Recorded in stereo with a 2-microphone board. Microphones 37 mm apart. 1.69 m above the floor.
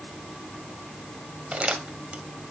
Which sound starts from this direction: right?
Crumpling, at 1.5 s.